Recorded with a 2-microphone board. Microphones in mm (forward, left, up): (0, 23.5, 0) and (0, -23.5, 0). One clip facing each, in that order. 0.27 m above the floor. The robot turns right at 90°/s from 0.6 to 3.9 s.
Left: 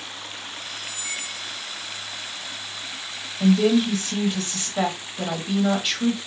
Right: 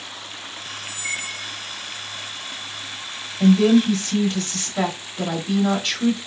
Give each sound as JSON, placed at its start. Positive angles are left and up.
{"t": 0.8, "sound": "a squeak", "azimuth_deg": -120, "distance_m": 0.5}
{"t": 3.4, "sound": "a woman speaking", "side_deg": -15, "distance_m": 0.9}